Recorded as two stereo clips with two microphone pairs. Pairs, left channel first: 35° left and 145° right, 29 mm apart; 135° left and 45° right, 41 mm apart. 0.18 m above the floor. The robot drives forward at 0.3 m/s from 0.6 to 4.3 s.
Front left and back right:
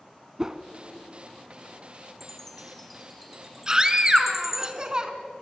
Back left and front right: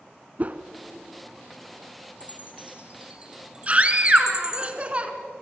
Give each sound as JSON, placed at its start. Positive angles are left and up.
{"t": 0.4, "sound": "a whoosh", "azimuth_deg": -85, "distance_m": 0.9}
{"t": 2.2, "sound": "a chime", "azimuth_deg": -40, "distance_m": 1.5}
{"t": 3.7, "sound": "a scream", "azimuth_deg": -90, "distance_m": 2.5}